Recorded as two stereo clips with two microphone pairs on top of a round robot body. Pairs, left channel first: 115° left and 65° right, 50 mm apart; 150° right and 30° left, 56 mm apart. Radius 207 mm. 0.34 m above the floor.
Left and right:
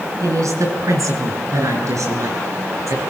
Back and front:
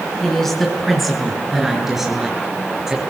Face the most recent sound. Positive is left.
turn(degrees=-55)